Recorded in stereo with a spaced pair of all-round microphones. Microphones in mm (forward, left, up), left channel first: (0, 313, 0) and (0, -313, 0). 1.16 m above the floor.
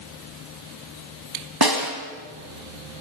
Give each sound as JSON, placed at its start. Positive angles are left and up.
{"t": 1.6, "sound": "a snare drum", "side_deg": -35, "distance_m": 4.5}